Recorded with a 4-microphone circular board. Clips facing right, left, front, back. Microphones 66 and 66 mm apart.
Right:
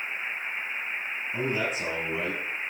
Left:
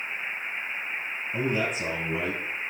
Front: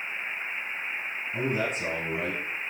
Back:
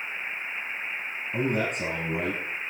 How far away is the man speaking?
About 2.5 m.